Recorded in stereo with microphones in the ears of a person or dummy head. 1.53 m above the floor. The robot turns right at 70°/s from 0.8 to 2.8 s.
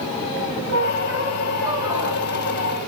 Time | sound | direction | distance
0.7 | a squeak | 120° right | 1.6 m